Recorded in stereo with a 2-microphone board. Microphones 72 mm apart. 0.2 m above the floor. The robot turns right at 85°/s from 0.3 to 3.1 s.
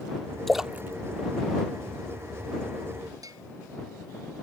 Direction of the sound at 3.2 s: 55° right (ahead or behind).